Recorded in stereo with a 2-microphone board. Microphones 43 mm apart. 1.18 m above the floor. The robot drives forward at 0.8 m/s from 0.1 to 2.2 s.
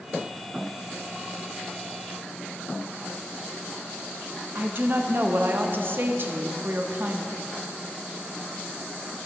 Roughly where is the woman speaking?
Right.